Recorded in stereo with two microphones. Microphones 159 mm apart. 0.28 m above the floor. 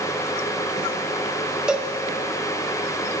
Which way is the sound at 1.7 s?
5° right (ahead or behind).